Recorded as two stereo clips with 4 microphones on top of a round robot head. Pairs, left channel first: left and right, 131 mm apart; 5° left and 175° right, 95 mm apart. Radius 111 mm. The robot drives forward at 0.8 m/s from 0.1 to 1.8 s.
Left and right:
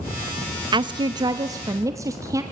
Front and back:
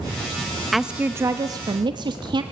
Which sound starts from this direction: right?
A woman speaking, at 0.7 s.